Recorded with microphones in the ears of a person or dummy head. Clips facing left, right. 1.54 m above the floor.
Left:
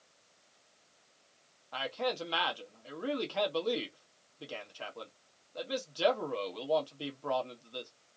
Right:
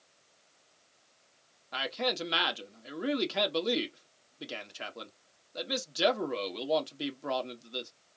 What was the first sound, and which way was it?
A man speaking, 30° right (ahead or behind).